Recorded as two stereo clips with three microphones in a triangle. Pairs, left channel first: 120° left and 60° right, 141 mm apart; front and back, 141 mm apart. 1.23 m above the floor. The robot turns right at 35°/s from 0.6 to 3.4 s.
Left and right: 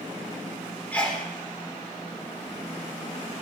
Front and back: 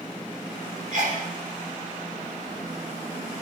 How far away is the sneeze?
About 4.5 m.